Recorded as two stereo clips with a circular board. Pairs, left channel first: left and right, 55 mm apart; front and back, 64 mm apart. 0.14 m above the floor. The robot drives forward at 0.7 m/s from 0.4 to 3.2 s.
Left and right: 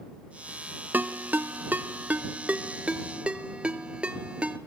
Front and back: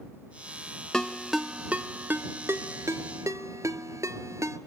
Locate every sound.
0.9 s a ringtone: 75° right, 1.0 m; by 4.6 s 155° right, 1.7 m